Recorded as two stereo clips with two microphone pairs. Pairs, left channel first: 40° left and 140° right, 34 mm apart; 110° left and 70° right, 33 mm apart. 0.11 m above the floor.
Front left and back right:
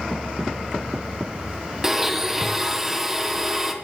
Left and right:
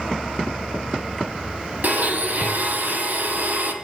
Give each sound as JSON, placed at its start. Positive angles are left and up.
{"t": 1.8, "sound": "a blender", "azimuth_deg": -60, "distance_m": 2.5}